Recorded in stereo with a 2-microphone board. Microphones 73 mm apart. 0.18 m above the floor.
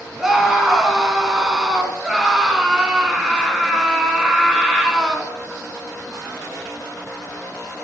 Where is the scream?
5° right (ahead or behind), 1.7 m.